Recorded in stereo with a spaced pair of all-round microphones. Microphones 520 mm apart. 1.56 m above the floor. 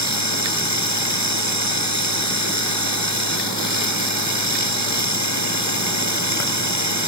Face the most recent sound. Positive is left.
turn(degrees=30)  # may be behind; listen again after turning